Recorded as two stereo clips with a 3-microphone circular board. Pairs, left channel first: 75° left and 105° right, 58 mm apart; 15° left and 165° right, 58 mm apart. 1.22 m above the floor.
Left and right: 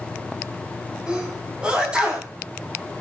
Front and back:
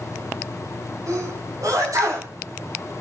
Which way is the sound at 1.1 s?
Straight behind.